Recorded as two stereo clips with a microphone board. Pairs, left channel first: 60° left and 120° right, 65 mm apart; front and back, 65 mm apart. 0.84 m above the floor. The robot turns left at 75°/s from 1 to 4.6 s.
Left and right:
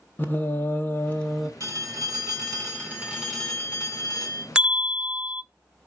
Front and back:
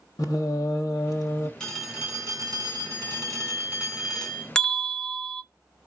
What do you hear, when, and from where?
0.2 s singing: 5° left, 1.4 m; by 1.5 s 35° right, 1.4 m
1.6 s a phone ringing: 80° right, 4 m; by 4.5 s 65° left, 4 m
4.5 s a bell: 65° right, 0.7 m